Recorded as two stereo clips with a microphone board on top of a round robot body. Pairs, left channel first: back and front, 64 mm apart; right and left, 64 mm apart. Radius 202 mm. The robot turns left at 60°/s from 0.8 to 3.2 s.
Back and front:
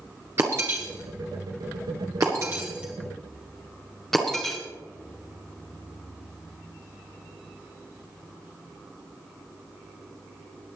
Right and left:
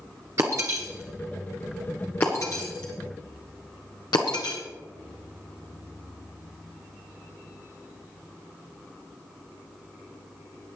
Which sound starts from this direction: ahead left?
Breaking glass, at 0.4 s.